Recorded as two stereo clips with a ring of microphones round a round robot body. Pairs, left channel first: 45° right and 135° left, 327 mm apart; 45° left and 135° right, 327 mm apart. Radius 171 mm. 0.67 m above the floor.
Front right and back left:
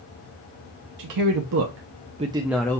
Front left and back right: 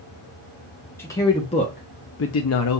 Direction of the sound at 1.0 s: 125° left.